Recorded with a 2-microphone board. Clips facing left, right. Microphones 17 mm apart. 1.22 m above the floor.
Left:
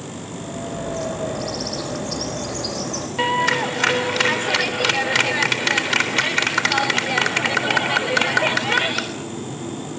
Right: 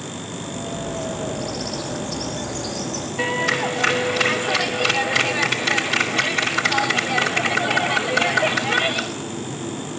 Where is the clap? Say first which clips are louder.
Left 2 dB; 35° left (ahead or behind), 3.5 m.